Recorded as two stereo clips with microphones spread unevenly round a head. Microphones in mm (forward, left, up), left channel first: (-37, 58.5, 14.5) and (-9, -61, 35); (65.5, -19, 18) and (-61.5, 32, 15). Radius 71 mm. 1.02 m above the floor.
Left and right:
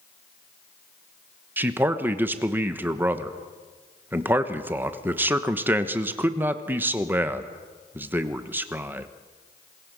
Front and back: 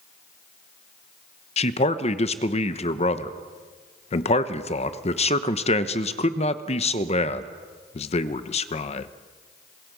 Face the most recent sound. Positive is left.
turn(degrees=0)